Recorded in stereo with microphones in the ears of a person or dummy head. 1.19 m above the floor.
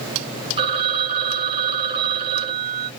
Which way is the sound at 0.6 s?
30° right (ahead or behind).